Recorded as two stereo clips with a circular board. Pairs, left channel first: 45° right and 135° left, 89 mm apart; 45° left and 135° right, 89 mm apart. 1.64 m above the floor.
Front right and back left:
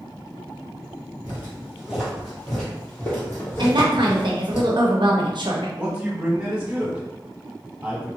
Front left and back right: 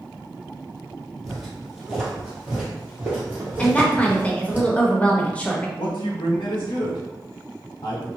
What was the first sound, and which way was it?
Footsteps, 135° left.